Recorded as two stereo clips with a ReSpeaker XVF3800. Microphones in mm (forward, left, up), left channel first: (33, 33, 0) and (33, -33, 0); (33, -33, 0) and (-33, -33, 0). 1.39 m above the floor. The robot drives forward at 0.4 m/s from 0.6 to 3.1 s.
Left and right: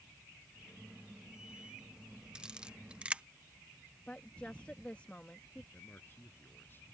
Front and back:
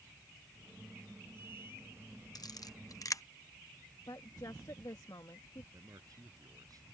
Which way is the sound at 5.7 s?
150° left.